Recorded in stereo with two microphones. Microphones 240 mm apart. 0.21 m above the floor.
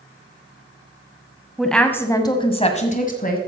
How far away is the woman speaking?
About 1.1 m.